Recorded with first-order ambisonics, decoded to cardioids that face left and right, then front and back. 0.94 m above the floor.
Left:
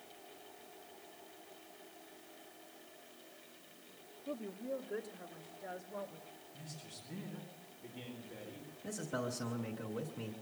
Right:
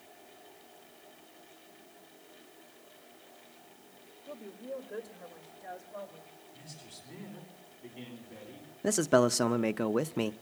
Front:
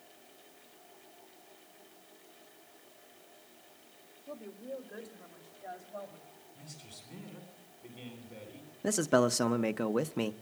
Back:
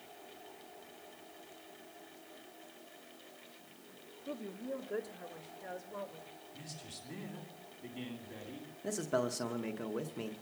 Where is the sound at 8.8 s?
60° right, 0.6 m.